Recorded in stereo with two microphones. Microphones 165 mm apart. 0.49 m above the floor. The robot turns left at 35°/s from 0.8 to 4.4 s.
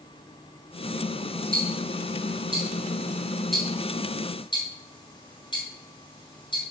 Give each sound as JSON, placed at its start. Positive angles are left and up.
{"t": 1.5, "sound": "ticking", "side_deg": -65, "distance_m": 3.5}